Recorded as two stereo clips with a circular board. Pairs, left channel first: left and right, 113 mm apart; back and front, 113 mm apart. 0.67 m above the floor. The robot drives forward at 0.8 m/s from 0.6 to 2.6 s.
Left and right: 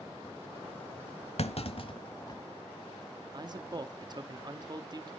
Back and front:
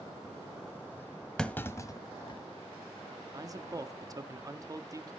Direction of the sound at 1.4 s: 95° left.